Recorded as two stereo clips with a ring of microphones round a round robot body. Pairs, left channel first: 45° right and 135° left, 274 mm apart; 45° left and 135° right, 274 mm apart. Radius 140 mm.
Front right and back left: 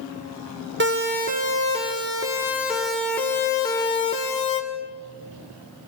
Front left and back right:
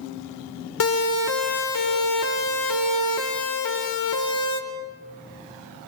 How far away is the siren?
About 2.5 m.